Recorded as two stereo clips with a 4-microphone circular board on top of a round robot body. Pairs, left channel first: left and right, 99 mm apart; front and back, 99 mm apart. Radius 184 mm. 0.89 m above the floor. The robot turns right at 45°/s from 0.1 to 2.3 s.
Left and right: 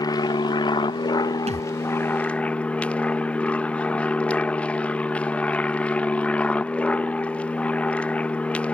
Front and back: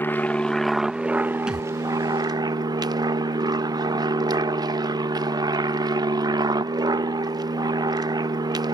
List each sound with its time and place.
0.0 s an aircraft: 60° left; by 8.8 s 160° left
1.5 s a thud: 95° right; by 1.7 s 85° right